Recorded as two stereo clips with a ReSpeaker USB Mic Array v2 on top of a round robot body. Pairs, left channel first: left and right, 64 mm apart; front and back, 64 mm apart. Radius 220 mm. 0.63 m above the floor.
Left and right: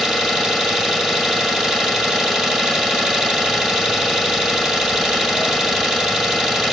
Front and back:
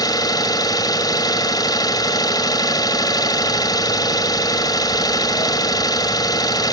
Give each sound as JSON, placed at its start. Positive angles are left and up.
{"t": 0.0, "sound": "an engine running", "azimuth_deg": -5, "distance_m": 1.9}